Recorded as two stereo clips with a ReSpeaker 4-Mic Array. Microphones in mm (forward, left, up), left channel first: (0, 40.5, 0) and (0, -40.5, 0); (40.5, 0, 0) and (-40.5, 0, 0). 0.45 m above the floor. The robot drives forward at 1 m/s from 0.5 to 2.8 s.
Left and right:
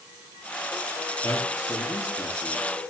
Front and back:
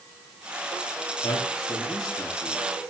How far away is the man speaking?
About 8 m.